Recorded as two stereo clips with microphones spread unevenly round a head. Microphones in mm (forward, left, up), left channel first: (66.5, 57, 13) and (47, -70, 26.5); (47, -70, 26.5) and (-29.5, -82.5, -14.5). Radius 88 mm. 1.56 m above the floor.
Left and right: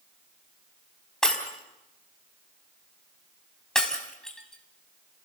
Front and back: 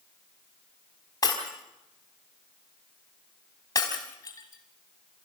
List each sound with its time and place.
1.2 s breaking glass: 5° right, 4 m